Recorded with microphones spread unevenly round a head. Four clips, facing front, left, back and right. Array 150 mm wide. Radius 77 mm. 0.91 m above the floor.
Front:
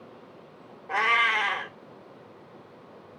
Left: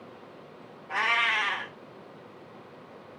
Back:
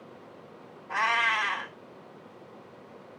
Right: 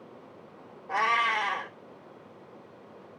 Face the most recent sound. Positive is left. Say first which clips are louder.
# right 2 dB, front 2 dB
turn(degrees=-35)